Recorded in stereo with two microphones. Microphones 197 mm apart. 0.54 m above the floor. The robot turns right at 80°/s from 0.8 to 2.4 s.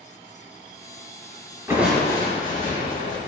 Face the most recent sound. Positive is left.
turn(degrees=40)